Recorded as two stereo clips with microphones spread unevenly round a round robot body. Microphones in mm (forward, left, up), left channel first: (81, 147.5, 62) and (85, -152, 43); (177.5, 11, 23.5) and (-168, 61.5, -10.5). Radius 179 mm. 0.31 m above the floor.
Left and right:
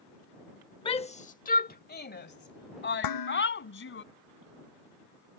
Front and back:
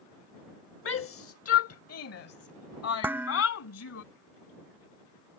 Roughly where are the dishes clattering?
Left.